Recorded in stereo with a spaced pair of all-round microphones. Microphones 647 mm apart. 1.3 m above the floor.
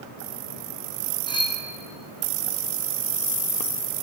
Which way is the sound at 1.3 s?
5° left (ahead or behind).